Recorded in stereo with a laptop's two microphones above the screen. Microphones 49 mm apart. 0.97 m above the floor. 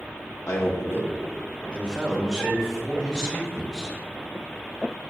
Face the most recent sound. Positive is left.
turn(degrees=-5)  # may be behind; listen again after turning